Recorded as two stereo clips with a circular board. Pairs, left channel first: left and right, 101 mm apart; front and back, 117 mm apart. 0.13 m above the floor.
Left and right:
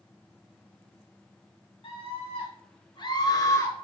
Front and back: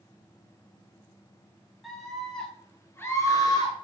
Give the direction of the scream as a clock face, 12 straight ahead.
9 o'clock.